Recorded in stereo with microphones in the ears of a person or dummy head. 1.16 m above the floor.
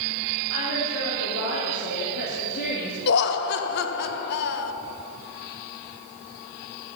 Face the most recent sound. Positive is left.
turn(degrees=55)  # may be behind; listen again after turning